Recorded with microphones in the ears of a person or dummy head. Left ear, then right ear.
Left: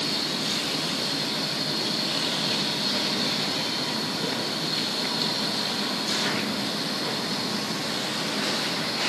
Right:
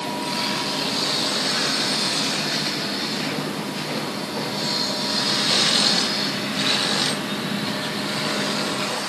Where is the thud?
I don't hear a thud.